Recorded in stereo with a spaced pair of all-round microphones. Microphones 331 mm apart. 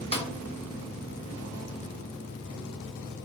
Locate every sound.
0.1 s a snare drum: 15° left (ahead or behind), 0.7 m